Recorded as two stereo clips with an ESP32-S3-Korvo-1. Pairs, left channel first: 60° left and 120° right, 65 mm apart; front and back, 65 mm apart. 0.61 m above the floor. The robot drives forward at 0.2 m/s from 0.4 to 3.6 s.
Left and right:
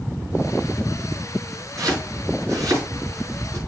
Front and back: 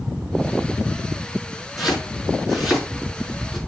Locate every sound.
1.8 s chopping: 90° right, 5 m; by 3.6 s 95° right, 5 m